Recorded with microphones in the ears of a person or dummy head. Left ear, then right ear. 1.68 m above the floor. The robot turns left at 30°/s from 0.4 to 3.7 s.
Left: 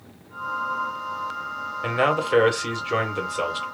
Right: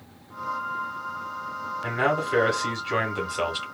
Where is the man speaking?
45° left, 1.3 m; by 3.6 s 10° right, 1.3 m.